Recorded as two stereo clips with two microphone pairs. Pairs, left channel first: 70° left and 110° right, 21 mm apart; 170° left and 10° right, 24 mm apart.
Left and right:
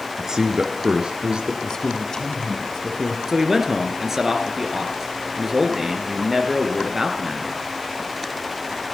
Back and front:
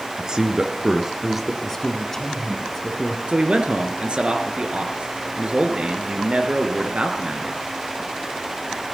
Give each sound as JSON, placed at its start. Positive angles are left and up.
{"t": 0.2, "sound": "a man speaking", "azimuth_deg": -60, "distance_m": 1.9}
{"t": 1.6, "sound": "a man speaking", "azimuth_deg": 105, "distance_m": 1.8}
{"t": 3.3, "sound": "a man speaking", "azimuth_deg": -45, "distance_m": 2.0}